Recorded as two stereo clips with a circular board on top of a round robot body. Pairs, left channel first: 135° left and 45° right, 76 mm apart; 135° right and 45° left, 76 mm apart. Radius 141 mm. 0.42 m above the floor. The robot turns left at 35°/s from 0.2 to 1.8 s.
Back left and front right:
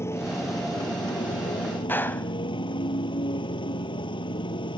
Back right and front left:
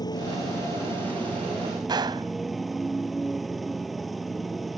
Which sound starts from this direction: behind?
A motorcycle, at 0.0 s.